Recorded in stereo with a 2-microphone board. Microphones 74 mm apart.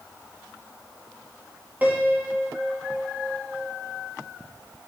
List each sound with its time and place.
1.8 s a piano: 20° right (ahead or behind), 2 m